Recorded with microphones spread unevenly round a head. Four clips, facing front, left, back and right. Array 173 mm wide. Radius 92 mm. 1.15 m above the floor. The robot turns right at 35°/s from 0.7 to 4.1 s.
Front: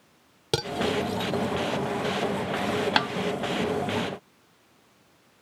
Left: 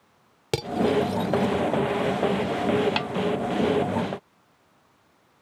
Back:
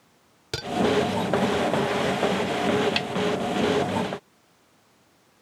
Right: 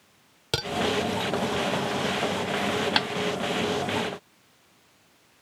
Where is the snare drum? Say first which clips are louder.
Right 1 dB, front 5 dB; 20° right; by 3.1 s 15° right.